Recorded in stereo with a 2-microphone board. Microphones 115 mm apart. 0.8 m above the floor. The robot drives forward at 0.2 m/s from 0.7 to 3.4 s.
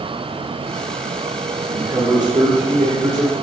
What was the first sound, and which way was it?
A man speaking, 75° right (ahead or behind).